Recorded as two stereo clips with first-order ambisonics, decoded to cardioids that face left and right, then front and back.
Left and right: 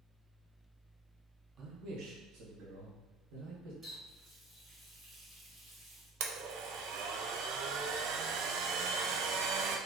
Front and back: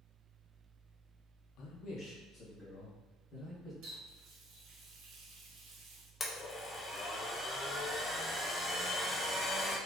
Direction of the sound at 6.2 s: 75° right.